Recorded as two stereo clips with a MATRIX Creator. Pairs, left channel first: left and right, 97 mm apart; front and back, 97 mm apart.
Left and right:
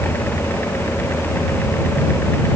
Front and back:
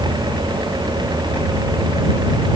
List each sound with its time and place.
Only background noise.